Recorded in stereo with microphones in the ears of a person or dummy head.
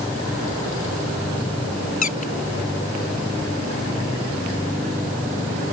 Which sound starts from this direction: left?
A squeak, at 2.0 s.